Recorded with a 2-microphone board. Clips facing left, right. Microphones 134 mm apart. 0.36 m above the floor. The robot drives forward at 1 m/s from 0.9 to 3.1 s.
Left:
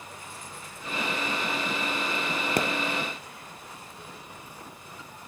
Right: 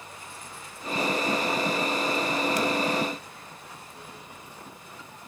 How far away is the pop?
About 0.9 m.